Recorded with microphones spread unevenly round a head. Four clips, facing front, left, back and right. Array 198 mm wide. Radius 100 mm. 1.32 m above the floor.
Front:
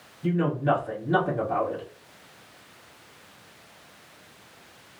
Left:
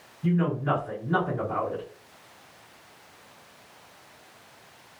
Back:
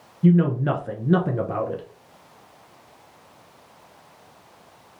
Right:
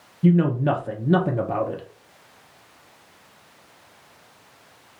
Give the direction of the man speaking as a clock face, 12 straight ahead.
4 o'clock.